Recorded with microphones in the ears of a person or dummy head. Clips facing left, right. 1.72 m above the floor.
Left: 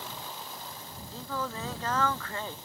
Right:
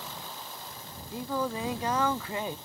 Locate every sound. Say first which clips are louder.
1.1 s singing: right 5 dB; 15° right (ahead or behind)